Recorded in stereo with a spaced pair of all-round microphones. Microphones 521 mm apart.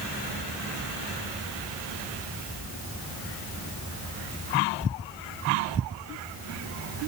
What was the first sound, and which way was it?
Only background noise.